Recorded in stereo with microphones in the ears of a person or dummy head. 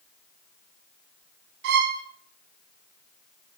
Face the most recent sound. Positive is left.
turn(degrees=-60)  # may be behind; listen again after turning